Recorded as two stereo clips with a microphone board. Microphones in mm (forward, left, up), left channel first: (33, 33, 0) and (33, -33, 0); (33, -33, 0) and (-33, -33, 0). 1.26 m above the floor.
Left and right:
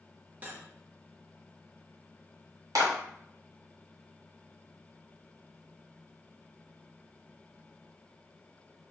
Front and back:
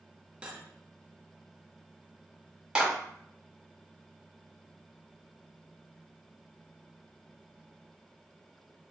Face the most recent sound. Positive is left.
turn(degrees=-105)